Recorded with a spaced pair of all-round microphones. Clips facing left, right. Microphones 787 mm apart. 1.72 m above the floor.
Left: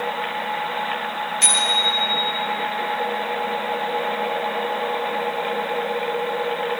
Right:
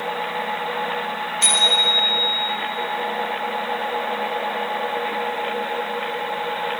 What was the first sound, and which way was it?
A bicycle bell, 85° left.